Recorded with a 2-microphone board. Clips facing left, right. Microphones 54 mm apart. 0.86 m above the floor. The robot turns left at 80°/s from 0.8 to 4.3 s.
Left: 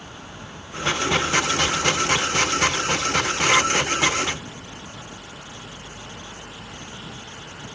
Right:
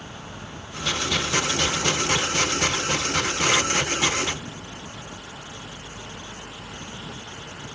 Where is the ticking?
I don't hear ticking.